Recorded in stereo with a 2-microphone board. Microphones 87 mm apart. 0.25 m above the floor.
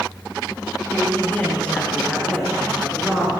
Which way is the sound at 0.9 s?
25° left (ahead or behind).